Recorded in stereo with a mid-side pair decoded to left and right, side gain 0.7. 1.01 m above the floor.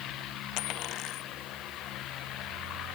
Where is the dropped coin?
60° left.